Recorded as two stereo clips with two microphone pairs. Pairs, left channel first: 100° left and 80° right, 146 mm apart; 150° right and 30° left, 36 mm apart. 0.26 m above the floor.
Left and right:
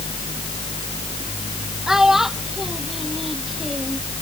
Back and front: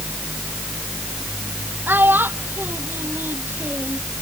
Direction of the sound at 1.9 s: 5° left.